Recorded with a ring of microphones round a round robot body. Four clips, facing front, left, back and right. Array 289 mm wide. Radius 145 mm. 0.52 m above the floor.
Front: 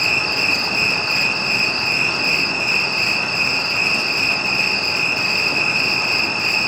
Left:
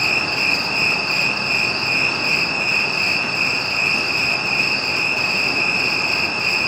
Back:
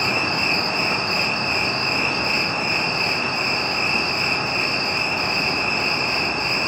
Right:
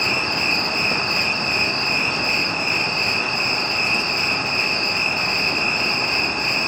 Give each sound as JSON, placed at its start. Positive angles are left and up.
{"t": 0.0, "sound": "an insect", "azimuth_deg": 20, "distance_m": 1.1}